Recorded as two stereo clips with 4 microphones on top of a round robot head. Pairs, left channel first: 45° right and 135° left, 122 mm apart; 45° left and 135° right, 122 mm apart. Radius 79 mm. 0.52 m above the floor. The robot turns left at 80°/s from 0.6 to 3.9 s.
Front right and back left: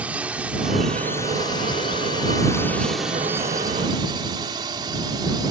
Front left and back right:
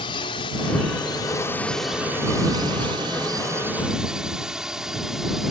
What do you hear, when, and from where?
0.0 s a drone: 60° left; by 5.5 s 140° left